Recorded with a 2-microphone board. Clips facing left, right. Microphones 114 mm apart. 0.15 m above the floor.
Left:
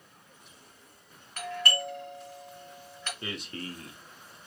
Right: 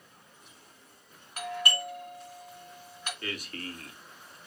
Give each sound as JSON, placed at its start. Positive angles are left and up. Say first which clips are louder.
{"t": 1.4, "sound": "a doorbell", "louder": "even", "side_deg": -15, "distance_m": 1.6}
{"t": 3.2, "sound": "a man speaking", "louder": "left 1 dB", "side_deg": 25, "distance_m": 1.1}